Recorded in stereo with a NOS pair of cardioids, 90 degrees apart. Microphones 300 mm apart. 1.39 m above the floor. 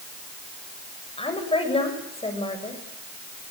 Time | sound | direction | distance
1.2 | a woman speaking | 20° left | 7.5 m